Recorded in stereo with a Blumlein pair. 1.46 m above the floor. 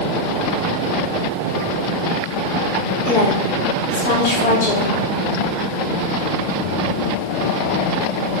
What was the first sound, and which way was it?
A woman speaking, 55° left.